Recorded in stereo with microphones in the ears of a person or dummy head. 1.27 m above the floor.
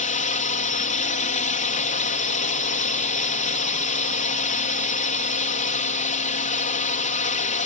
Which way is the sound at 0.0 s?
35° left (ahead or behind).